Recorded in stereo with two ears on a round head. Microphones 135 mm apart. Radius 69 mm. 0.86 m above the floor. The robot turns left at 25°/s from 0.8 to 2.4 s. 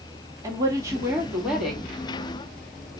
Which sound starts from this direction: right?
A woman speaking, at 0.4 s.